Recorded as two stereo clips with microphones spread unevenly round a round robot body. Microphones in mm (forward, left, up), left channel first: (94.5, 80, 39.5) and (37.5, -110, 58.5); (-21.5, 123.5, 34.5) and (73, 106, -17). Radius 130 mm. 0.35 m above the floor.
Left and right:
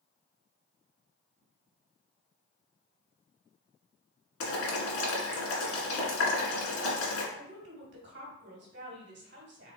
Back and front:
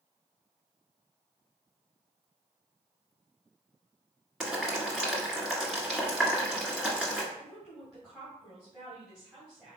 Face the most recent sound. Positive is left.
turn(degrees=-85)